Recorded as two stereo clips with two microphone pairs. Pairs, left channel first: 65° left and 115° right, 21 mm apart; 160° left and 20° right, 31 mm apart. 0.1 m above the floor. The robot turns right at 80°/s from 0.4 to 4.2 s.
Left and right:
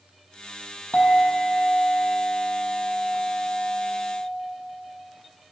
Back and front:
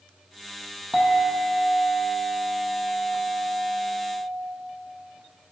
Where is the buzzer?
I don't hear a buzzer.